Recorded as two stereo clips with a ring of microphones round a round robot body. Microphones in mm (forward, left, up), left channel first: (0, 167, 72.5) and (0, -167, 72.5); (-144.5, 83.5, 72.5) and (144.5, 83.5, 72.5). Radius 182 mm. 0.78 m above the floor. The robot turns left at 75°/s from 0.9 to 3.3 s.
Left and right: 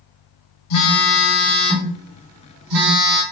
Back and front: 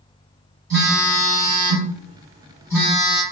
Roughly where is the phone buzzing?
Ahead left.